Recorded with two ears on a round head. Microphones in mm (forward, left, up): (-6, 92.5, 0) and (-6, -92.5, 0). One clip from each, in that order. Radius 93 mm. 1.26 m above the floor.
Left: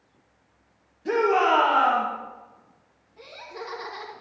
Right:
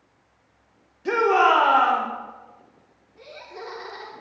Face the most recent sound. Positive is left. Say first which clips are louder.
# even
turn(degrees=0)  # may be behind; listen again after turning